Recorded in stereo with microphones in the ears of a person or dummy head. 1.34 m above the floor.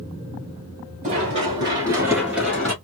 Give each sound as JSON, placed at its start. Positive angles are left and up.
{"t": 1.0, "sound": "running footsteps", "side_deg": -30, "distance_m": 1.5}